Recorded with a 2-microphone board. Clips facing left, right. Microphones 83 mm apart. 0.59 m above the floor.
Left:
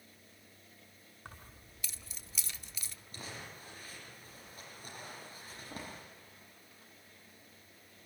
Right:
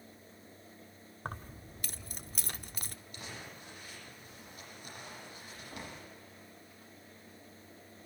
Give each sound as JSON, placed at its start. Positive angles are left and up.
{"t": 1.2, "sound": "keys jangling", "side_deg": -50, "distance_m": 0.9}
{"t": 3.1, "sound": "crumpling", "side_deg": 35, "distance_m": 9.0}